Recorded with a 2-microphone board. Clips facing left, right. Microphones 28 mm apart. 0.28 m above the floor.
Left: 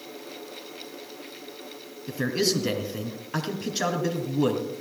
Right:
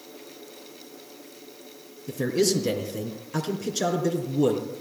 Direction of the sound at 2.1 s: 35° left (ahead or behind).